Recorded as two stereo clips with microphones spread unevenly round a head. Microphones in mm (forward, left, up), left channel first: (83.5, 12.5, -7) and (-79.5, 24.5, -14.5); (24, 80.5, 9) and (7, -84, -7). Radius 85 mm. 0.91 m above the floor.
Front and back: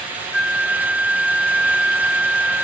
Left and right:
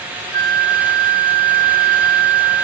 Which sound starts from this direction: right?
A flute, at 0.3 s.